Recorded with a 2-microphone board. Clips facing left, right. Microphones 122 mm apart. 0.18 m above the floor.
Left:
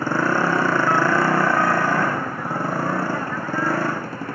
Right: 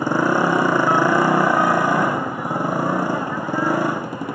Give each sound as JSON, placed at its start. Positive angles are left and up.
{"t": 0.0, "sound": "a motorcycle", "side_deg": -15}